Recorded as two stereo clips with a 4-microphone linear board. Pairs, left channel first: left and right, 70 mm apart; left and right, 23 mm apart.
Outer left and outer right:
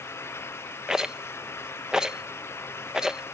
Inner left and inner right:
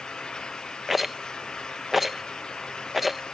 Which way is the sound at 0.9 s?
10° right (ahead or behind).